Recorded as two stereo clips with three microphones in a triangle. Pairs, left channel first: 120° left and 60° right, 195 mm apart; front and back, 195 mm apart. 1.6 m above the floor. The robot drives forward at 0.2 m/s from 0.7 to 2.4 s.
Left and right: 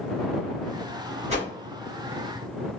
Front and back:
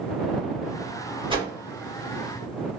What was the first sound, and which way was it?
A whoosh, 115° right.